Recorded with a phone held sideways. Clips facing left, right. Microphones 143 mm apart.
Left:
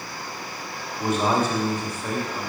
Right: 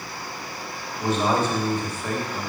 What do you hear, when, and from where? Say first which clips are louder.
1.0 s a man speaking: even; 10° left (ahead or behind), 1.3 m